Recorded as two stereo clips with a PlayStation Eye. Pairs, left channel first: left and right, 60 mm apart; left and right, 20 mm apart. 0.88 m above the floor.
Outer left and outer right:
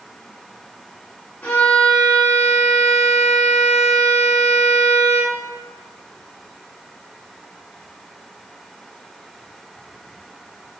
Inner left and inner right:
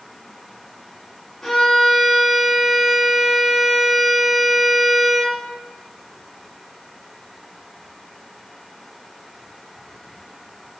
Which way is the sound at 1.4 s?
25° left (ahead or behind).